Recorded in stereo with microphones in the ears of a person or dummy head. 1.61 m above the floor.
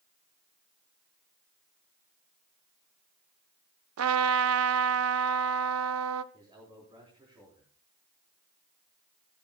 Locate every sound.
4.0 s a trumpet: 80° right, 0.8 m
6.3 s a man speaking: 20° right (ahead or behind), 4 m